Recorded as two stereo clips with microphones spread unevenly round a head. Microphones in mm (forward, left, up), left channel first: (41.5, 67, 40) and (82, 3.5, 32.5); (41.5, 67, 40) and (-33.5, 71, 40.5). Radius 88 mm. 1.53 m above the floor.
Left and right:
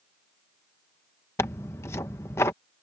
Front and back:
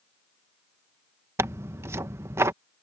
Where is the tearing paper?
150° left.